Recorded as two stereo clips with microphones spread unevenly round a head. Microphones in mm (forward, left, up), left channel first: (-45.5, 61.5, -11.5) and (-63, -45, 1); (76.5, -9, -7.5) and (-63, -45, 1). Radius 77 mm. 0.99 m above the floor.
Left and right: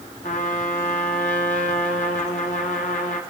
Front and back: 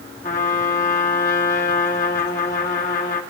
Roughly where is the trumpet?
Ahead left.